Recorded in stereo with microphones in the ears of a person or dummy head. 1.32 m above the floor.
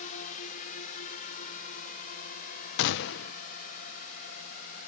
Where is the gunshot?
70° left (ahead or behind).